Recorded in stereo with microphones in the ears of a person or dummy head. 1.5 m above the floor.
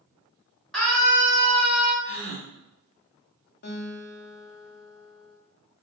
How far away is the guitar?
About 0.7 m.